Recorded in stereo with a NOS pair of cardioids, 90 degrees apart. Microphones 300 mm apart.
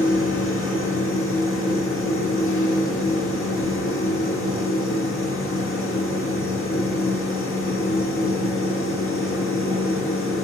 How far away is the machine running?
About 1.7 m.